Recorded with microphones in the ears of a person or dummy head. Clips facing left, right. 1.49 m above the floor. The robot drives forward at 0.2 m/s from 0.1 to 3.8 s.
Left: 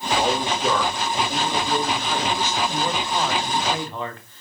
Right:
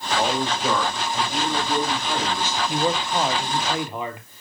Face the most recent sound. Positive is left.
turn(degrees=-15)  # may be behind; listen again after turning